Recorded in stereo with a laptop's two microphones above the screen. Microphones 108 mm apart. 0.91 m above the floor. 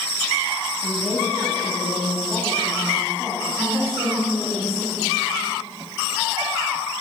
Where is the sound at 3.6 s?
60° right (ahead or behind), 2.5 m.